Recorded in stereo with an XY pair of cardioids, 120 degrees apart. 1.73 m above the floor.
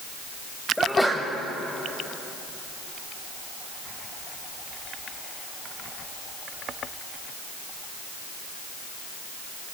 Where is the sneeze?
5° left, 1.7 m.